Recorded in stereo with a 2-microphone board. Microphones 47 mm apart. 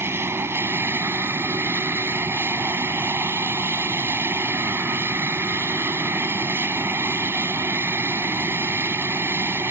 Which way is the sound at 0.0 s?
60° right (ahead or behind).